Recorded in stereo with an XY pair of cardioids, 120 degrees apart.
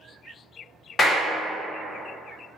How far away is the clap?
About 0.8 m.